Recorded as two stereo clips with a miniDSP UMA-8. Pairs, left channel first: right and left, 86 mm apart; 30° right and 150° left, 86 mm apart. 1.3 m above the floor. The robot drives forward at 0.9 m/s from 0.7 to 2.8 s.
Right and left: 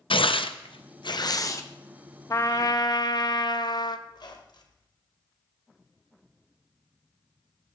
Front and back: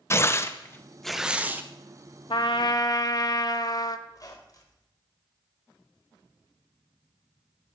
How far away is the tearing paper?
About 0.6 m.